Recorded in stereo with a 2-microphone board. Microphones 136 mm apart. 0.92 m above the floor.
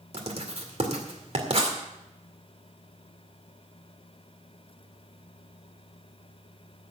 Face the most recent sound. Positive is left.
turn(degrees=-55)  # may be behind; listen again after turning